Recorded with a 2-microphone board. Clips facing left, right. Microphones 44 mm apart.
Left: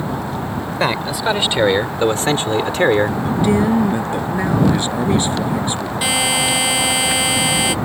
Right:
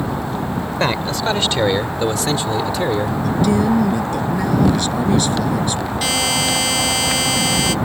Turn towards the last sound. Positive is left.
turn(degrees=15)  # may be behind; listen again after turning